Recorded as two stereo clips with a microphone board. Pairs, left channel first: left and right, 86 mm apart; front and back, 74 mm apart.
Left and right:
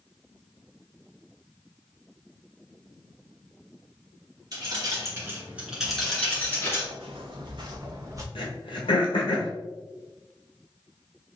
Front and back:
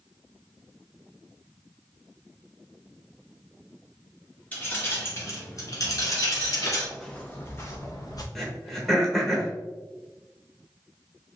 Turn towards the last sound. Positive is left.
turn(degrees=85)